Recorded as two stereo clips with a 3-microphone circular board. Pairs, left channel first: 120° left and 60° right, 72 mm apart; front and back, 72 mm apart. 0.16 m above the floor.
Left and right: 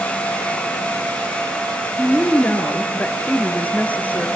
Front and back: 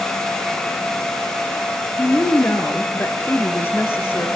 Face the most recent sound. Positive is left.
turn(degrees=55)